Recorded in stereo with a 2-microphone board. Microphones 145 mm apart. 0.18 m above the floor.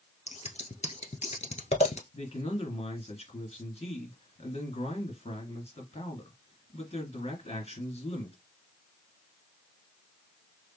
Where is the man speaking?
50° left (ahead or behind), 2.5 m.